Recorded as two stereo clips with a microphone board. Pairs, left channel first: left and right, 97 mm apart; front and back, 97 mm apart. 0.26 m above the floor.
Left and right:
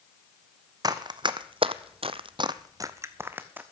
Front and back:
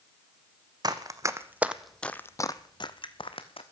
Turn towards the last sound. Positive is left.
turn(degrees=-15)